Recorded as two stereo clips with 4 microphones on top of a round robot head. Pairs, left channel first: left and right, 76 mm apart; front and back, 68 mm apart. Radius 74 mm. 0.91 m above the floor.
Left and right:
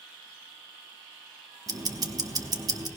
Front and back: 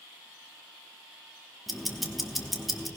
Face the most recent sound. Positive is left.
turn(degrees=-90)